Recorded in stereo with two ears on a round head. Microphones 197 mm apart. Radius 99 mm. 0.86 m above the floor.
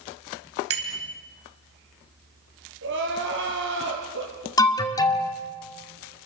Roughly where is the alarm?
Centre.